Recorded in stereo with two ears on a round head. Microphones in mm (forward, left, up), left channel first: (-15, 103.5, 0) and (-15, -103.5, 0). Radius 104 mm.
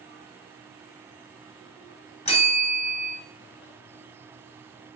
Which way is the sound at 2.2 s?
30° left (ahead or behind).